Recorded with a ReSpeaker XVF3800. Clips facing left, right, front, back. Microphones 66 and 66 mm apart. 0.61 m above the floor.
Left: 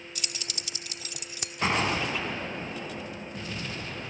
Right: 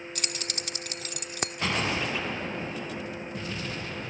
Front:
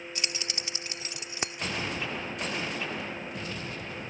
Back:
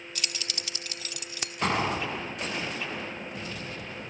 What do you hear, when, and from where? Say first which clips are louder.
0.1 s keys jangling: right 3 dB, even; 60° right
1.6 s an explosion: left 3 dB, back 8 dB; 155° left